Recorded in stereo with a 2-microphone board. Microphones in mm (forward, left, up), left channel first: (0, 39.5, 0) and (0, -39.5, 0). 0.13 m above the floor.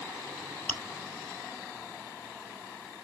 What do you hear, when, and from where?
0.7 s chewing: 15° left (ahead or behind), 1.6 m